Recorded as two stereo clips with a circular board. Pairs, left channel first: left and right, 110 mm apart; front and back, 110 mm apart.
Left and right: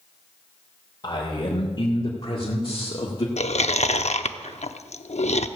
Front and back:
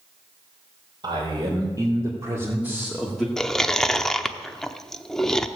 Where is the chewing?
85° left, 0.6 m.